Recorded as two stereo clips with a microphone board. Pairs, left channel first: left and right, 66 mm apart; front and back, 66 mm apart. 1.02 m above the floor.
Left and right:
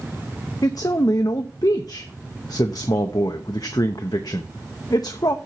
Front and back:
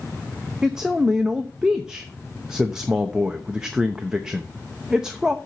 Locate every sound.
0.6 s a man speaking: 100° left, 0.8 m